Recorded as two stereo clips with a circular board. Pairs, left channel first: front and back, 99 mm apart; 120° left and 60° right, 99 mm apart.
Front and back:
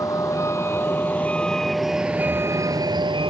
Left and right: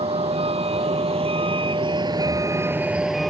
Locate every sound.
0.0 s a vehicle: 55° right; by 3.3 s 150° right